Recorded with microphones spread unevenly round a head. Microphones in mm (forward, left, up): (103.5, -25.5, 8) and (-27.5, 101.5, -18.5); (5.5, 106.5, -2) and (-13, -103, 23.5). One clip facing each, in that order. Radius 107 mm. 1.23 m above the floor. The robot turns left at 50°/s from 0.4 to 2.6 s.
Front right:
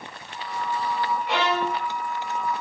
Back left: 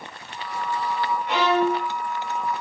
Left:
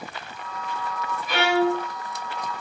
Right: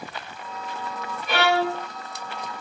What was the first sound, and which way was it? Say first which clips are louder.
A violin: back left 7 dB, left 2 dB; 125° right.